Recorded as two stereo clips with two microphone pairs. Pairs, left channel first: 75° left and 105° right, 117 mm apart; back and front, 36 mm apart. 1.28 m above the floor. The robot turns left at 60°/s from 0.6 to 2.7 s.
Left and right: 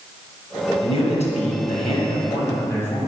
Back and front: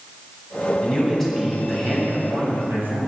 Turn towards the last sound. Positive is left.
turn(degrees=5)